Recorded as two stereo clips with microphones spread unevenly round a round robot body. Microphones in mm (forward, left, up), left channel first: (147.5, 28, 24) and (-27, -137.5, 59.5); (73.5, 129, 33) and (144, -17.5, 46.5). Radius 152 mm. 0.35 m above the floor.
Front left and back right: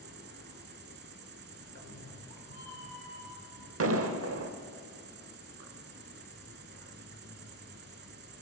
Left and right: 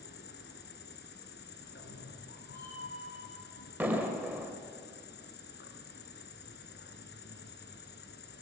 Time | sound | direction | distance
0.0 | an insect | 165° left | 1.1 m
1.6 | a cat meowing | 110° left | 7 m
3.8 | an explosion | 150° right | 1.7 m